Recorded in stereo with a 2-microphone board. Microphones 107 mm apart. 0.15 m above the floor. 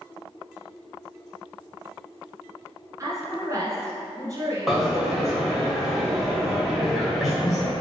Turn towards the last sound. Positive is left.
turn(degrees=0)  # may be behind; listen again after turning